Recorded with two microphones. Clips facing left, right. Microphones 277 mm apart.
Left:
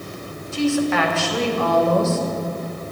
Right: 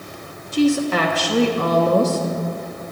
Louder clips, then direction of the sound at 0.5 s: Right 2 dB; 40° right (ahead or behind).